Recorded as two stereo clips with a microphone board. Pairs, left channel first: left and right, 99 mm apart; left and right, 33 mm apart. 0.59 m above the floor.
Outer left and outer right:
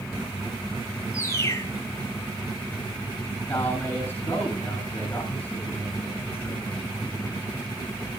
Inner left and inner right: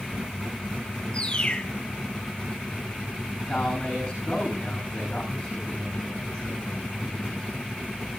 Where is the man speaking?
20° left (ahead or behind), 7.5 m.